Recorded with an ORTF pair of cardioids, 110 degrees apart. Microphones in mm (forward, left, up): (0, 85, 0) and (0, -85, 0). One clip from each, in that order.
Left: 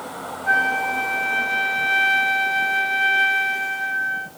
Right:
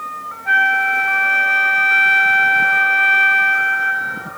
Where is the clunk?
I don't hear a clunk.